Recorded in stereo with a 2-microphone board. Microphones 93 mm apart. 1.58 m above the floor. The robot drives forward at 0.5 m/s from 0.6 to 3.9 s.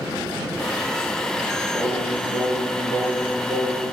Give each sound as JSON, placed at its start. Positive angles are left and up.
{"t": 1.7, "sound": "singing", "side_deg": -45, "distance_m": 4.0}